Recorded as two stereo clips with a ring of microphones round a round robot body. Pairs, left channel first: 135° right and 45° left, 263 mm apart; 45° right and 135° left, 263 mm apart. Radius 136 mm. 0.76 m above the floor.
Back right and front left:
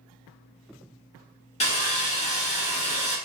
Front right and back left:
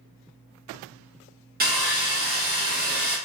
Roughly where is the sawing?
Behind.